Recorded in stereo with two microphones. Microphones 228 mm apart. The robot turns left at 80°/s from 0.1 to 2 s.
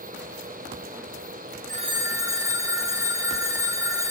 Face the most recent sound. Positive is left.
turn(degrees=-15)  # may be behind; listen again after turning